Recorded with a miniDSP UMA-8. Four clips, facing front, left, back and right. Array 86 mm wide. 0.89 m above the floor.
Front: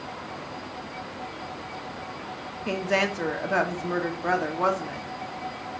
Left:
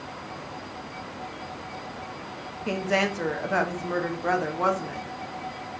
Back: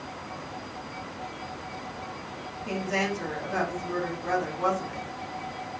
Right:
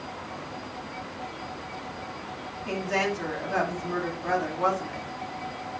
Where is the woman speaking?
40° left, 1.0 m.